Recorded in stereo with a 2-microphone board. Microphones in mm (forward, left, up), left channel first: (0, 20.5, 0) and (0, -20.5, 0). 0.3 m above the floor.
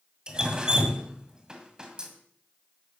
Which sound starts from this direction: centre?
Dripping, at 0.3 s.